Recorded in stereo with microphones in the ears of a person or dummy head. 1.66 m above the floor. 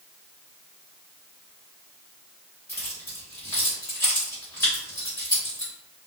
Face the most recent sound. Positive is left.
turn(degrees=20)  # may be behind; listen again after turning